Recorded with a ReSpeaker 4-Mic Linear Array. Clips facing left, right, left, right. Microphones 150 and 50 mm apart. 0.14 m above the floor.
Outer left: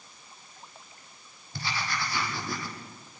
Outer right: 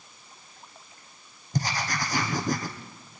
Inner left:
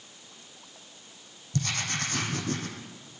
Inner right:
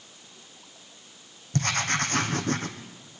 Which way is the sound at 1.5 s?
45° right (ahead or behind).